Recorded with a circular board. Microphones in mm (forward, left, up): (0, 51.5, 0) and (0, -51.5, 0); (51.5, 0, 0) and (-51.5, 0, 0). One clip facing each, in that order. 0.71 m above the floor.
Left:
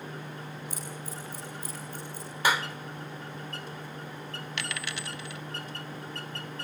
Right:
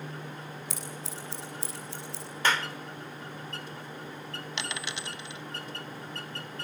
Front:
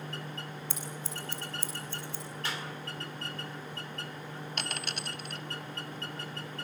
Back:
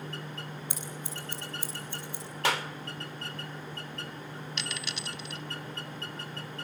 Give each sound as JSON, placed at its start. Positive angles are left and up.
{"t": 0.7, "sound": "scissors", "azimuth_deg": -105, "distance_m": 9.0}
{"t": 2.4, "sound": "a clap", "azimuth_deg": 170, "distance_m": 1.7}
{"t": 4.6, "sound": "a dropped coin", "azimuth_deg": -25, "distance_m": 0.8}